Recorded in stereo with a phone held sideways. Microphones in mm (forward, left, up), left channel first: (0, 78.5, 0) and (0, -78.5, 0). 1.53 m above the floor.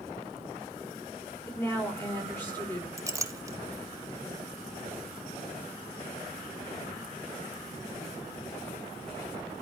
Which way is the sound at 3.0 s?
20° right (ahead or behind).